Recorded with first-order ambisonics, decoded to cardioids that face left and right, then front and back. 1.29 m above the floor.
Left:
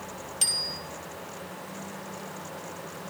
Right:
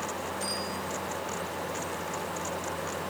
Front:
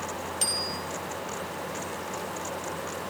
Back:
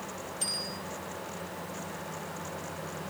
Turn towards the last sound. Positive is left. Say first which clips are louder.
# left 9 dB, front 5 dB
turn(degrees=50)